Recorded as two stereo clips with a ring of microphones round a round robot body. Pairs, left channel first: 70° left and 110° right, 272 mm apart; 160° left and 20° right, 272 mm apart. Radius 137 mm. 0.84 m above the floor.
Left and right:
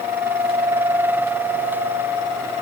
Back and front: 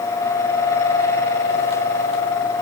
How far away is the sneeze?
I don't hear a sneeze.